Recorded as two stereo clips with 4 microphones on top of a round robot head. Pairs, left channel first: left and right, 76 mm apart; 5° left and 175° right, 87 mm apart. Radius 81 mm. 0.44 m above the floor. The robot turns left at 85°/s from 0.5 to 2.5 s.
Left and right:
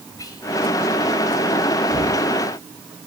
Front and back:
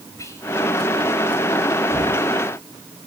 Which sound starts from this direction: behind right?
Knocking, at 1.9 s.